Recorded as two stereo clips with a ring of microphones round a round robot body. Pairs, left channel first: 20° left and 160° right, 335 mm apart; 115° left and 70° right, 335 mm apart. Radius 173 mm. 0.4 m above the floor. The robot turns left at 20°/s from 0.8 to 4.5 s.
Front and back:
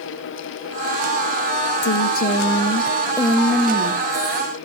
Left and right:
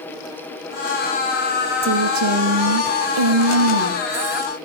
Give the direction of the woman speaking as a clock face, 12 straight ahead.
1 o'clock.